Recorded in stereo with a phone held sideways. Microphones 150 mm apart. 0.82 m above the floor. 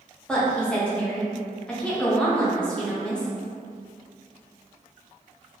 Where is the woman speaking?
5° left (ahead or behind), 0.6 m.